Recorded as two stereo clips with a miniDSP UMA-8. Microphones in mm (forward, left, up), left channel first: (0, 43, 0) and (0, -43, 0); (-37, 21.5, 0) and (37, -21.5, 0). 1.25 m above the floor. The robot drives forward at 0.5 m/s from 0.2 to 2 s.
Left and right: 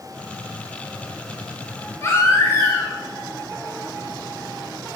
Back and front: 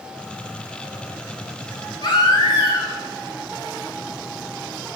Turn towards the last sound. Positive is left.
turn(degrees=145)